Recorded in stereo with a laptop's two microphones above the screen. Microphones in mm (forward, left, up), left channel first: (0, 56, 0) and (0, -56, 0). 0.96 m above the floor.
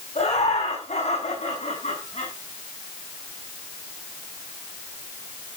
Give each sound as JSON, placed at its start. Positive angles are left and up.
{"t": 0.1, "sound": "laughter", "side_deg": 80, "distance_m": 9.0}